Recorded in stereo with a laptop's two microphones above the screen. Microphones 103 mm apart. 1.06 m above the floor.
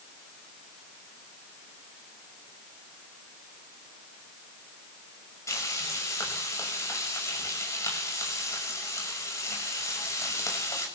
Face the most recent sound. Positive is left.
turn(degrees=30)  # may be behind; listen again after turning